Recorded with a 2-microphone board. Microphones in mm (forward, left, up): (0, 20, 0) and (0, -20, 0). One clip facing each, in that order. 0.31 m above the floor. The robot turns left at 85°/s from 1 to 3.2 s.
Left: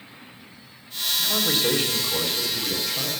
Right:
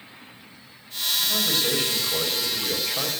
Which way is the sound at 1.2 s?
55° left.